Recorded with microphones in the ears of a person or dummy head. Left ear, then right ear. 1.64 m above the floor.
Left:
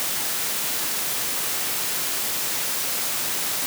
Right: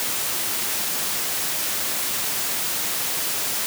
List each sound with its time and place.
Only background noise.